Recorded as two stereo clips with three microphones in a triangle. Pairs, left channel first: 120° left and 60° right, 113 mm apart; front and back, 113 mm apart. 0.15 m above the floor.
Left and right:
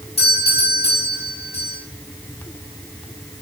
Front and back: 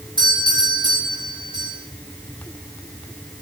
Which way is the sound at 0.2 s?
140° left.